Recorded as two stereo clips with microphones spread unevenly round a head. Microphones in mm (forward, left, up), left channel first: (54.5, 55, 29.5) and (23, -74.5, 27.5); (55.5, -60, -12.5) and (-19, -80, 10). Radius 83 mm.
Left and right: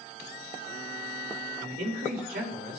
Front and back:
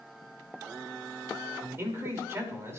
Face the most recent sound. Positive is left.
turn(degrees=-110)